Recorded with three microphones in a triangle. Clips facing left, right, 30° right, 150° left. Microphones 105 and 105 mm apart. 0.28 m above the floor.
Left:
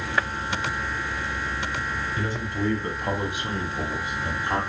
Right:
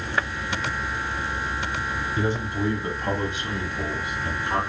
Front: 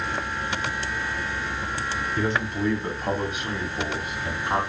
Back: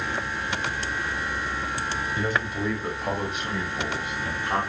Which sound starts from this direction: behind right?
A man speaking, at 2.2 s.